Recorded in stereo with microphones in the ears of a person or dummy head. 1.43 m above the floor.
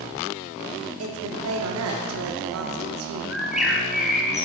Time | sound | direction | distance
1.0 | a woman speaking | 75° right (ahead or behind) | 0.5 m
3.3 | a bird | centre (ahead or behind) | 0.6 m